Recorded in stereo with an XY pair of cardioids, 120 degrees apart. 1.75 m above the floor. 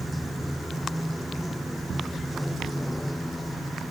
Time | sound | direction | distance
0.0 | running water | straight ahead | ?